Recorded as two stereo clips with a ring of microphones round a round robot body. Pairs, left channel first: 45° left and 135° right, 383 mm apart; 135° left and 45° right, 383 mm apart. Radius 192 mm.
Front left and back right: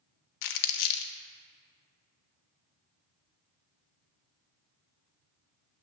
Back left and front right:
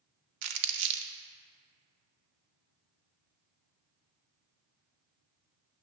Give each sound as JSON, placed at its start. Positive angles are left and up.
{"t": 0.4, "sound": "crumpling", "azimuth_deg": 5, "distance_m": 0.6}